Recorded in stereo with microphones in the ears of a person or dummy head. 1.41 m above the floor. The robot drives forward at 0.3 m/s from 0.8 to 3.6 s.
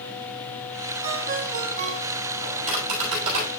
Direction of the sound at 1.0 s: 45° right (ahead or behind).